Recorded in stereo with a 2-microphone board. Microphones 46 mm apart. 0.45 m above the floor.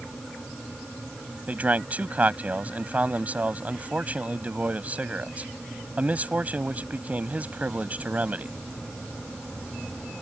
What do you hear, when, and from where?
1.5 s a man speaking: 35° right (ahead or behind)